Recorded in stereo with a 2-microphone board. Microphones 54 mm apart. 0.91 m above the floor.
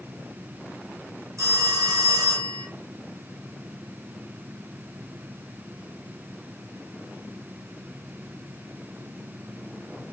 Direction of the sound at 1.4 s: 65° right (ahead or behind).